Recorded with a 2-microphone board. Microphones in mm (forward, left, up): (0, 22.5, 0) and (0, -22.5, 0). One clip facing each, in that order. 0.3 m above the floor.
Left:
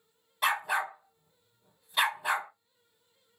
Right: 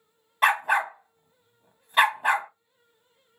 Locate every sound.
0.4 s a dog barking: 45° right (ahead or behind), 0.6 m